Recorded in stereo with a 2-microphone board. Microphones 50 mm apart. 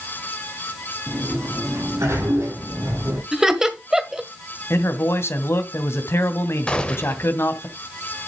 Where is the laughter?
10° right (ahead or behind), 1.7 m.